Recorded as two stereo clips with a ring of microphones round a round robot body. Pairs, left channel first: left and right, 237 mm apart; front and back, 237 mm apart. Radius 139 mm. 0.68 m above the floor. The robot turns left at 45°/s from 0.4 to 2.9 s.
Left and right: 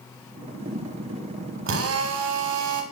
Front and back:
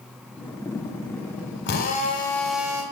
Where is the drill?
55° right, 1.9 m; by 2.8 s 105° right, 1.9 m.